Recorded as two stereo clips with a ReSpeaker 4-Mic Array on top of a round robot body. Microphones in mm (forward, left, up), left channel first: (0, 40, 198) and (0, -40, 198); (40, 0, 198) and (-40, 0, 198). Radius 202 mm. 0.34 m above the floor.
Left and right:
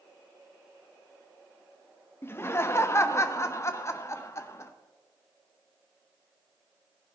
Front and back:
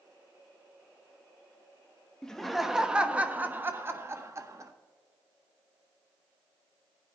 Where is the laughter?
75° left, 1.2 m; by 4.7 s 140° left, 1.8 m.